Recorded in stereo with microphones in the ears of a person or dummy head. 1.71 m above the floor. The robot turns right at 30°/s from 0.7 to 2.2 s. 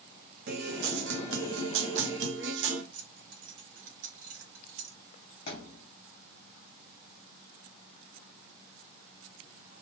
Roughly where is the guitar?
Behind right.